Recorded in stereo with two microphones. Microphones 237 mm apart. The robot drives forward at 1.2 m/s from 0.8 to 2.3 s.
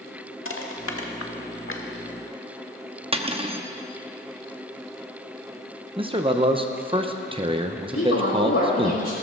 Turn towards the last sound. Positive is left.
turn(degrees=75)  # may be behind; listen again after turning